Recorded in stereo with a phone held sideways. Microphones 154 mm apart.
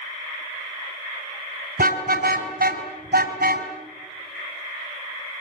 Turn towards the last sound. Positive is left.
turn(degrees=-85)